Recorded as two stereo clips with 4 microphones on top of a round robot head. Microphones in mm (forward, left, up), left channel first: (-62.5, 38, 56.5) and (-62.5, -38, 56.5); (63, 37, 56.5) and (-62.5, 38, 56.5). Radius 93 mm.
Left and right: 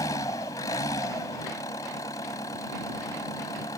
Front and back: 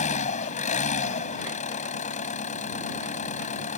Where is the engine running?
25° left.